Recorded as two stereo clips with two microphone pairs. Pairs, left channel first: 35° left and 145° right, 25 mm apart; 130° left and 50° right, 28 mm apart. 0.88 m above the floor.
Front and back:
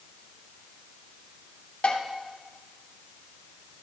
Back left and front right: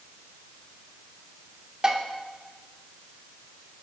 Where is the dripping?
I don't hear dripping.